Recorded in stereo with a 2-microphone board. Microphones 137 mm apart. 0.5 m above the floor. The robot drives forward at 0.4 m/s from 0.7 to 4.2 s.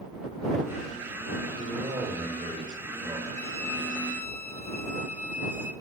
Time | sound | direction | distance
1.6 | a man speaking | 55° right (ahead or behind) | 7.5 m
3.4 | a violin | 20° left (ahead or behind) | 1.4 m